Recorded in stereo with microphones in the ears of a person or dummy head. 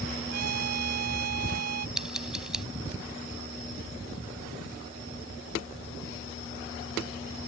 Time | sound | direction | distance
0.3 | a trumpet | 55° right (ahead or behind) | ?
2.0 | scissors | centre (ahead or behind) | ?